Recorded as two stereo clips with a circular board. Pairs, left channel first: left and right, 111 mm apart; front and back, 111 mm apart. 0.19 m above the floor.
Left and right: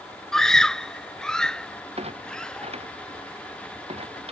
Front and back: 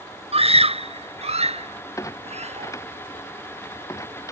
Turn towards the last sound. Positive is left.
turn(degrees=-65)